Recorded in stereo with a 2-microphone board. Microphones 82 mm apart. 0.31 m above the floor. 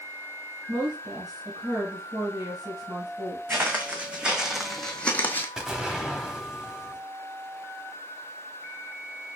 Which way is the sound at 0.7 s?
65° right (ahead or behind).